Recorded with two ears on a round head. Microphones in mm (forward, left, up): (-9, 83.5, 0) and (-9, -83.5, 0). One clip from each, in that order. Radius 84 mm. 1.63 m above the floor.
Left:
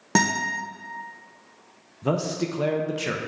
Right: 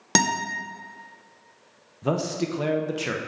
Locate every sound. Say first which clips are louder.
0.1 s a guitar: even; 80° right, 1.0 m
2.0 s a man speaking: even; 5° right (ahead or behind), 0.6 m